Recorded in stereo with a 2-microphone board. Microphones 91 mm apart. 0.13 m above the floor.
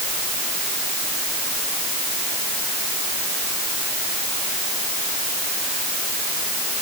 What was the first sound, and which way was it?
Only background noise.